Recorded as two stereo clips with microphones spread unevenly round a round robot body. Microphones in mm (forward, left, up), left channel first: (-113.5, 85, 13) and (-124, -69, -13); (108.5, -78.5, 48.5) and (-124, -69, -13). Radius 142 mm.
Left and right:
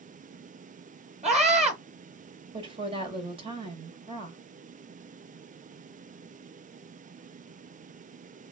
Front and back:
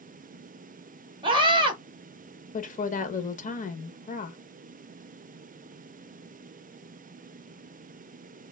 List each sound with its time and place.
1.2 s a scream: 125° right, 1.7 m
2.5 s a woman speaking: 65° right, 1.1 m